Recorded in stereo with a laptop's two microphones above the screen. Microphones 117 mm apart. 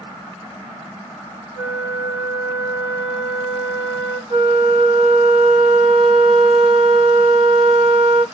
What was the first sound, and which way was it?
A flute, 65° right (ahead or behind).